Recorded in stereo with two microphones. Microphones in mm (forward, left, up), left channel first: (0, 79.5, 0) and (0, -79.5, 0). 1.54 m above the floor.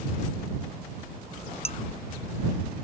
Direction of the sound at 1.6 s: 40° left (ahead or behind).